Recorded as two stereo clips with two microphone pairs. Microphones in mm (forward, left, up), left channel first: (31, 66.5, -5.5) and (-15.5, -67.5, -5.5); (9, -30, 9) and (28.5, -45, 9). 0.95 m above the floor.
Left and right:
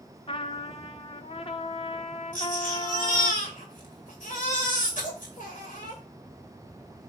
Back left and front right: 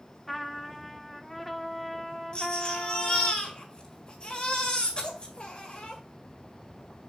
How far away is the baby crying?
About 2 m.